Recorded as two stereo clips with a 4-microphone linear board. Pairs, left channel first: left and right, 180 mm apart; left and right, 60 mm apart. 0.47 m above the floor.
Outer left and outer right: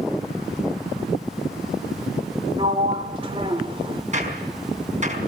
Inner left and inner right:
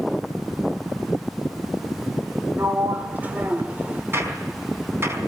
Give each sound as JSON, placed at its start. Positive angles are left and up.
{"t": 2.6, "sound": "a sliding door", "side_deg": -30, "distance_m": 1.7}
{"t": 4.1, "sound": "a gunshot", "side_deg": -40, "distance_m": 4.5}